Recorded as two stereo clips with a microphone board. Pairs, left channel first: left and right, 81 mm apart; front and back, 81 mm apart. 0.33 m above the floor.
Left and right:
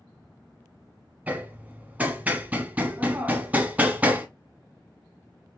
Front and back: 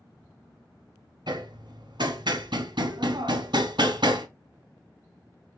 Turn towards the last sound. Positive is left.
turn(degrees=-160)